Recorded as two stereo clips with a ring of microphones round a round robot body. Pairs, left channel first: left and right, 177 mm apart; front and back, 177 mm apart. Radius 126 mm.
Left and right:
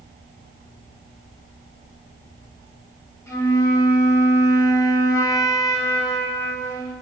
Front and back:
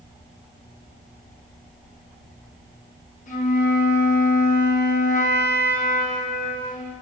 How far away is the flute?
About 0.7 m.